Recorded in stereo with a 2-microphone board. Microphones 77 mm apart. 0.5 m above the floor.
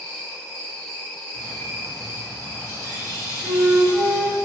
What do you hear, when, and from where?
0.0 s an insect: 5° left (ahead or behind), 1.9 m
1.3 s a bird: 35° left (ahead or behind), 0.9 m
3.4 s a flute: 15° left (ahead or behind), 1.7 m